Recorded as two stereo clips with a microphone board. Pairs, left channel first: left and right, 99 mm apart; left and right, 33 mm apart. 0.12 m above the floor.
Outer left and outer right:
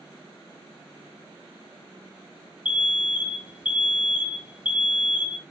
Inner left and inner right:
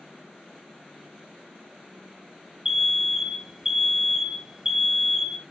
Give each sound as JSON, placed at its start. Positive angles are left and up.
{"t": 2.6, "sound": "an alarm", "side_deg": -15, "distance_m": 0.9}